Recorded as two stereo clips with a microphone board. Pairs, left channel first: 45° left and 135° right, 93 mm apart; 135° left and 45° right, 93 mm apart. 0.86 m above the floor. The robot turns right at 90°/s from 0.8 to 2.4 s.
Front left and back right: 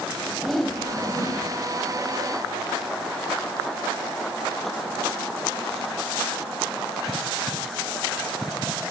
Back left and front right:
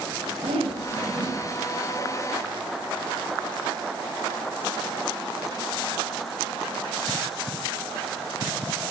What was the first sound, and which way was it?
A whoosh, 45° right.